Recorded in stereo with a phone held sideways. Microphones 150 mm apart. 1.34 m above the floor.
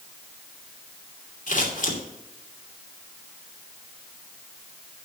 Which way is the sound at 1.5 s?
60° left (ahead or behind).